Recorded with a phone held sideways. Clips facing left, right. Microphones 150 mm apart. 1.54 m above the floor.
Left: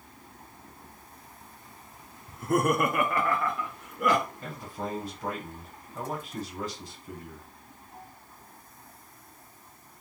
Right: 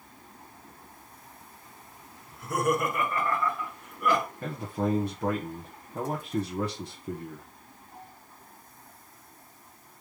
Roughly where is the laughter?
Left.